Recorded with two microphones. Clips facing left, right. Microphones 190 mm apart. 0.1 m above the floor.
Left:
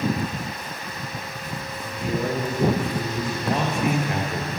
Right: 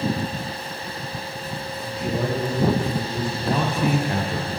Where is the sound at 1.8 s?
70° right (ahead or behind), 6 m.